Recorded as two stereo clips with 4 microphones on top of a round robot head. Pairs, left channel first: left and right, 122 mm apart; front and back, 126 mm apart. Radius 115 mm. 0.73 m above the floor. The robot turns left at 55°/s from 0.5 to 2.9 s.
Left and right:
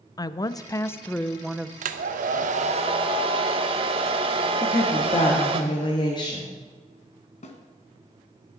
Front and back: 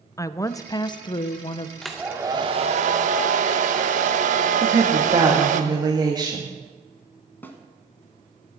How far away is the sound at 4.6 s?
About 1.4 m.